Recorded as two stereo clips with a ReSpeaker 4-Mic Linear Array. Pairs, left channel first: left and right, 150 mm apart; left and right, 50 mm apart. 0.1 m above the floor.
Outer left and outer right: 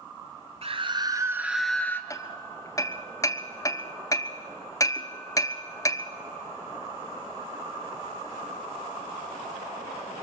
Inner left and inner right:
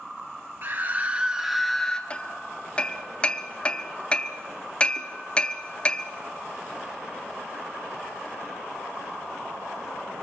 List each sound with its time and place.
0.6 s a scream: 40° right (ahead or behind), 1.4 m; by 2.0 s 15° left (ahead or behind), 1.3 m
2.1 s hammering: 20° left (ahead or behind), 0.8 m